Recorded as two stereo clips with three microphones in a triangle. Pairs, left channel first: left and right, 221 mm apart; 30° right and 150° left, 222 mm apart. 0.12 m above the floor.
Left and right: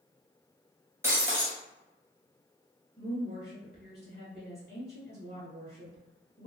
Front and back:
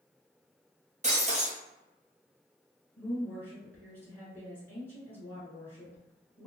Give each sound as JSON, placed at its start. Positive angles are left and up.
{"t": 1.0, "sound": "breaking glass", "azimuth_deg": -165, "distance_m": 1.0}
{"t": 3.0, "sound": "a woman speaking", "azimuth_deg": -100, "distance_m": 1.2}